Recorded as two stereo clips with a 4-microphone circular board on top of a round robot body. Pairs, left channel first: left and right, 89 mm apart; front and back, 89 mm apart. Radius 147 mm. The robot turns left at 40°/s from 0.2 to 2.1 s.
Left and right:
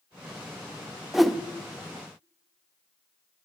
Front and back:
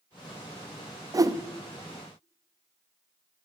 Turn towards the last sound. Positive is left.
turn(degrees=145)